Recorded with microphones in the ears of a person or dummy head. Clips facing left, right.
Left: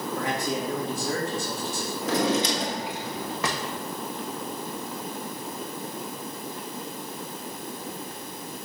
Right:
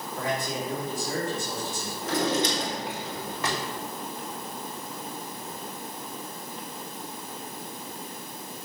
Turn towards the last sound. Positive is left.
turn(degrees=50)  # may be behind; listen again after turning